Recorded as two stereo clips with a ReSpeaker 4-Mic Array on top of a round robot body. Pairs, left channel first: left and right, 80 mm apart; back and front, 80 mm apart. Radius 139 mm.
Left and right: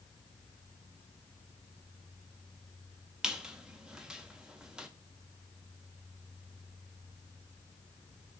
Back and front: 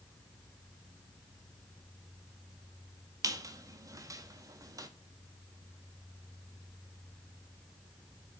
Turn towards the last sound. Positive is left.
turn(degrees=-10)